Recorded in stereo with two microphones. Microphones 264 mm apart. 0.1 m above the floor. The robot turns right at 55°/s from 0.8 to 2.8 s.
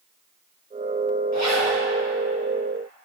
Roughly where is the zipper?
Left.